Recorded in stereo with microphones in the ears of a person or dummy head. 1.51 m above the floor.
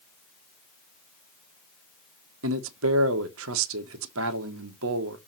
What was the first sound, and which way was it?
A man speaking, 80° right.